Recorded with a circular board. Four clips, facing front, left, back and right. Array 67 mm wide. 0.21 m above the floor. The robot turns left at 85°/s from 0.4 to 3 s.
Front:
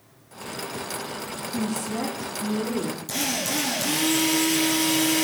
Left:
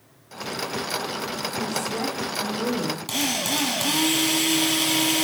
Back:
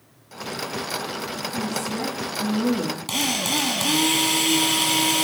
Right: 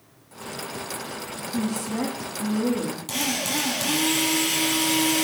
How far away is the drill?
About 4 m.